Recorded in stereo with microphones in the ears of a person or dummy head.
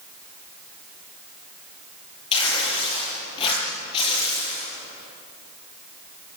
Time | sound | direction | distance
2.3 | tearing paper | 35° left (ahead or behind) | 9 m